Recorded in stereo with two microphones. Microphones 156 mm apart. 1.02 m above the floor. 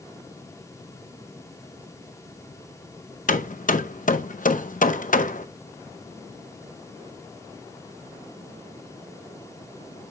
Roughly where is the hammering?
Left.